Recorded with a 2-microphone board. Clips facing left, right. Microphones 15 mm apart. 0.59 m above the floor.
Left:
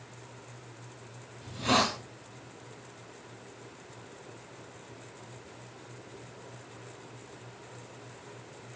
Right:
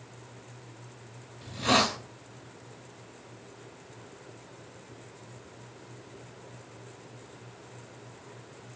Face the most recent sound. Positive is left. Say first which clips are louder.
# right 2 dB
turn(degrees=-15)  # may be behind; listen again after turning